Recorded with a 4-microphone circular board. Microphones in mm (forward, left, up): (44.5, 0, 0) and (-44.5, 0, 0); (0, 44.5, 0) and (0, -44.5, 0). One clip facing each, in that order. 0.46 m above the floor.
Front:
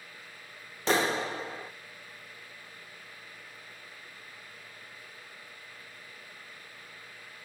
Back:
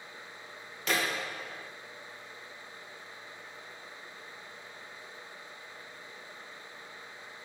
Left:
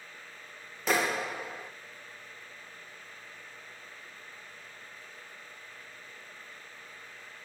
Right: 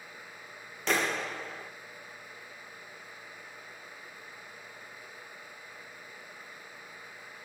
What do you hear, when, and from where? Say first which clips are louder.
0.9 s a clap: front 5 dB, left 1 dB; 10° left, 0.7 m